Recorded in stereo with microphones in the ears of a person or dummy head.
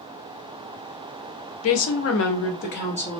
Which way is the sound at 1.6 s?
70° left (ahead or behind).